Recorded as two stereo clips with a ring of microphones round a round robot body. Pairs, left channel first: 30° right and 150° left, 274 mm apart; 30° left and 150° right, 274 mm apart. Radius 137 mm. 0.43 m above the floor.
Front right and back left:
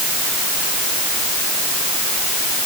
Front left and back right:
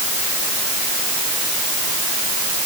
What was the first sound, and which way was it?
Only background noise.